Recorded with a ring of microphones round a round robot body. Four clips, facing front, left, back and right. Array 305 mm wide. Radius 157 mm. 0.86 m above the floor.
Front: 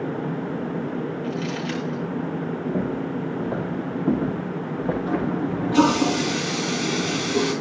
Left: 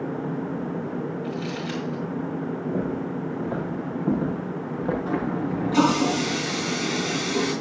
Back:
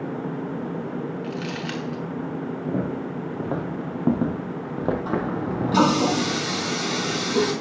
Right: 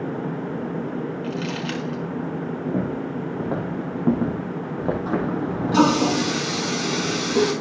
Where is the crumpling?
115° right, 5 m.